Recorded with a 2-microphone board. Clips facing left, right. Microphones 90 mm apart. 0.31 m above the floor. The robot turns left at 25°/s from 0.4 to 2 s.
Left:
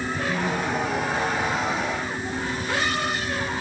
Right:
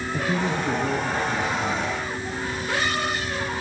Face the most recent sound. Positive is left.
turn(degrees=-70)